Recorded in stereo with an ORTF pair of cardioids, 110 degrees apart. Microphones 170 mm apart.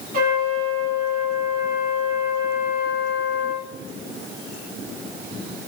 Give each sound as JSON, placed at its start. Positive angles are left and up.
{"t": 0.1, "sound": "a trumpet", "azimuth_deg": -55, "distance_m": 6.0}